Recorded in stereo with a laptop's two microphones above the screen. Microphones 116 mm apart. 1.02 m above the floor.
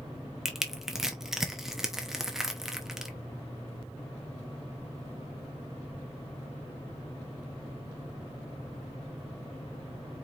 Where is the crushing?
5° right (ahead or behind), 0.8 m.